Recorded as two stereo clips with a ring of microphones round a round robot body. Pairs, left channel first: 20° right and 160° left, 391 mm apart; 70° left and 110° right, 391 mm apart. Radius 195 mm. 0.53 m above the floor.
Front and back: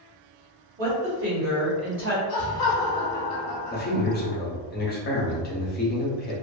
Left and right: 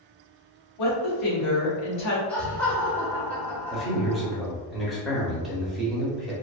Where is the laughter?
20° right, 0.8 m.